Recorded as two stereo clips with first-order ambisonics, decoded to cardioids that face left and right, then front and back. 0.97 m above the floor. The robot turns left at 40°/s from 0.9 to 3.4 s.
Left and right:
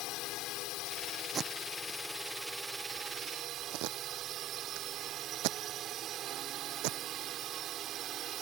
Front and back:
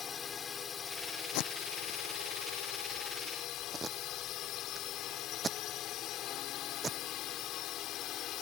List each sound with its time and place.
0.0 s a drone: 60° left; by 8.4 s 40° right
1.3 s tape being pulled: 20° right; by 7.0 s 105° right